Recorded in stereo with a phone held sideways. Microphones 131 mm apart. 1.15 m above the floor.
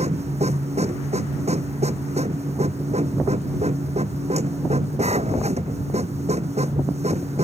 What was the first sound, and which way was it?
A machine running, 55° right (ahead or behind).